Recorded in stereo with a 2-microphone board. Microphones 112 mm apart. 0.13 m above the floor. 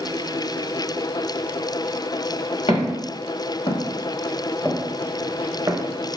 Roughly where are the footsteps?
Left.